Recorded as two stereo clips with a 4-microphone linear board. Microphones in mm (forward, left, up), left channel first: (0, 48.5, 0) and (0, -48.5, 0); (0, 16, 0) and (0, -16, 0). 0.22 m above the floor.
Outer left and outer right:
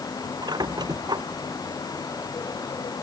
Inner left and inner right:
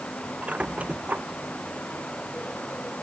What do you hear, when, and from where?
0.4 s a squeak: 50° right (ahead or behind)